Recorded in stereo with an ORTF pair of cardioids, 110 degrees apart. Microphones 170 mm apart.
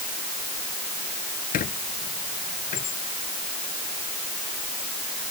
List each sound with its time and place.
1.5 s a squeak: 55° left